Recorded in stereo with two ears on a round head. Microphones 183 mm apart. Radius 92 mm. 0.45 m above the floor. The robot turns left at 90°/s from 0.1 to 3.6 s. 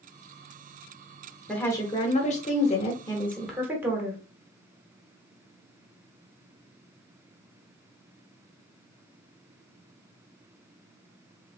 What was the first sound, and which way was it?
A woman speaking, 175° left.